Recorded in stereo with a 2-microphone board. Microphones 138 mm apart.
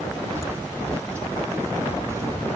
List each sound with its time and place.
0.3 s footsteps: 20° right (ahead or behind)